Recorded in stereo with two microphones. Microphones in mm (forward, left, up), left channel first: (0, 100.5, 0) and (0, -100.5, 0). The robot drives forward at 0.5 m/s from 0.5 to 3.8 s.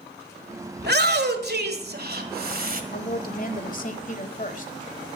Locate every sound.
0.8 s a shout: 55° right (ahead or behind), 1.7 m; by 2.8 s 45° right (ahead or behind), 1.9 m
2.9 s a woman speaking: 50° left (ahead or behind), 1.3 m; by 4.7 s 40° left (ahead or behind), 1.5 m